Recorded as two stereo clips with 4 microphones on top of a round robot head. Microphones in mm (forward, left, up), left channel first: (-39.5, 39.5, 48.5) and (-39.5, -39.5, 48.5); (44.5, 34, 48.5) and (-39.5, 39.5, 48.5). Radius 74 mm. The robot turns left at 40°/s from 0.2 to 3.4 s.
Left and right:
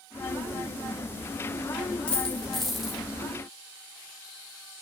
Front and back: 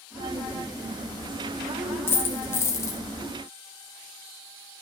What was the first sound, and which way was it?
A dropped coin, 25° left.